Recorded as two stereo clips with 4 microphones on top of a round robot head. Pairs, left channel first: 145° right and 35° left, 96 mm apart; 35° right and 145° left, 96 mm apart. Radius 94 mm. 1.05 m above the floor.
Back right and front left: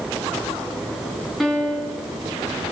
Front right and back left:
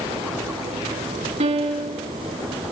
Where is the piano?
125° left, 4 m.